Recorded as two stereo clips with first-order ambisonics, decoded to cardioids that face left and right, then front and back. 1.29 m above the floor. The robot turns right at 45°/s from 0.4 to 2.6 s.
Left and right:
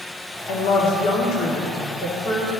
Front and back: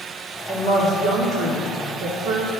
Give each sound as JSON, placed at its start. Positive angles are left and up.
{"t": 0.5, "sound": "a woman speaking", "azimuth_deg": 85, "distance_m": 1.5}